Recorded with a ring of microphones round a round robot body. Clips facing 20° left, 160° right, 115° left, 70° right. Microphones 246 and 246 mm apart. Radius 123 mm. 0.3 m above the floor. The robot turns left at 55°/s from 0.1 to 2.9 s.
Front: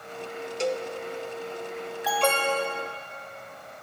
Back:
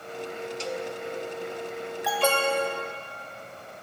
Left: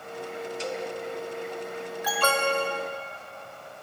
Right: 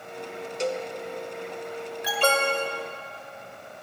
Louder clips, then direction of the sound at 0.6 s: Front 7 dB, right 6 dB; 20° right.